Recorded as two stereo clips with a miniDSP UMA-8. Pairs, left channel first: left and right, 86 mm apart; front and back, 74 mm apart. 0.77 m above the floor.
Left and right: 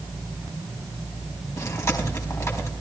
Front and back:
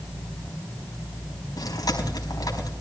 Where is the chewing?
35° left, 4.5 m.